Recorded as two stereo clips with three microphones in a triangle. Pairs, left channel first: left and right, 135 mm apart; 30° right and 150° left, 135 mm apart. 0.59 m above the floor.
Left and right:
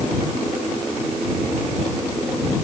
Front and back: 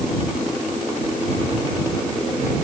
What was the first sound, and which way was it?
Only background noise.